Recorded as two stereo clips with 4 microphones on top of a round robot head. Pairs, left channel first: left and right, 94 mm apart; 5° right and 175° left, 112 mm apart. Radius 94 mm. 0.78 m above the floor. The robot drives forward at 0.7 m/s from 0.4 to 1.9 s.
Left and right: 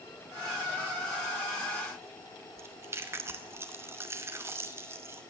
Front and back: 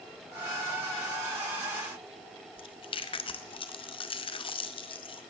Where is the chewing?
30° right, 1.0 m.